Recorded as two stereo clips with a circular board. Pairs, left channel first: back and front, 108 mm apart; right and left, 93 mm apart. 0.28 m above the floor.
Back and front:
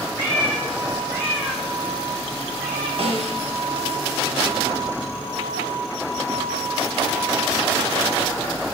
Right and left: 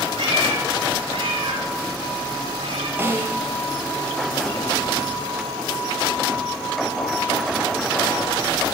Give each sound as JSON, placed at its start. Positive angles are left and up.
{"t": 0.2, "sound": "a cat meowing", "azimuth_deg": 65, "distance_m": 9.5}
{"t": 3.0, "sound": "a snare drum", "azimuth_deg": 20, "distance_m": 7.5}